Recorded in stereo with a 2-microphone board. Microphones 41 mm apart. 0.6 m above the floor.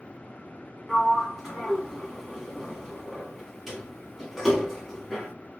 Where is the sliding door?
Centre (ahead or behind), 1.2 m.